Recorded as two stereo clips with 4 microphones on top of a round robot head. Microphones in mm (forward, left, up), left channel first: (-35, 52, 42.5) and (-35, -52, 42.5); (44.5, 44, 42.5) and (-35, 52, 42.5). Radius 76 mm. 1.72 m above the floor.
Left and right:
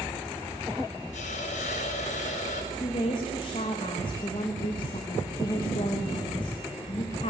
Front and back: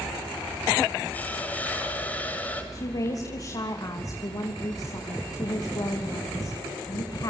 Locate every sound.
1.1 s a hiss: 65° left, 7 m
2.7 s a woman speaking: 40° left, 3 m